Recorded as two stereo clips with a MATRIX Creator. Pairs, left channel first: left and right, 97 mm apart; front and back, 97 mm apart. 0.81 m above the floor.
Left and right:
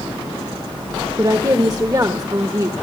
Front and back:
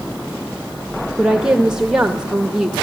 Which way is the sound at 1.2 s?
105° right.